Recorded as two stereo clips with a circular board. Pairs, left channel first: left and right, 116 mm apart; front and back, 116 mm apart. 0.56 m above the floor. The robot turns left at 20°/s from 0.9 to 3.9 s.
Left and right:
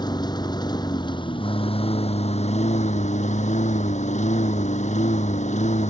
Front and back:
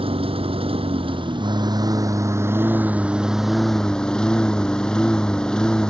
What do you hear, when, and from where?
0.0 s a lawn mower: 145° left; by 5.9 s 85° left